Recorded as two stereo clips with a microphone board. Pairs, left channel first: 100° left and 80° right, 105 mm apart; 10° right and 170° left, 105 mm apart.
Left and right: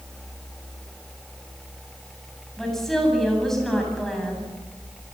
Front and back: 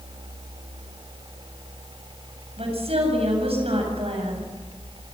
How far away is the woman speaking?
About 8 m.